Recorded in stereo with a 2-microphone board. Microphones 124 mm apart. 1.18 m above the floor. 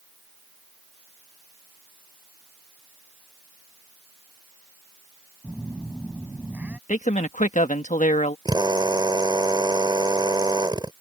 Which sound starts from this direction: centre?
A phone buzzing, at 5.4 s.